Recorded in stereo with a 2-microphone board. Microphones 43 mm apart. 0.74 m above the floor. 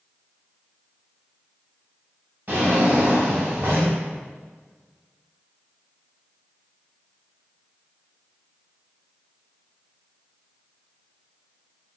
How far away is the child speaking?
No child speaking in this recording.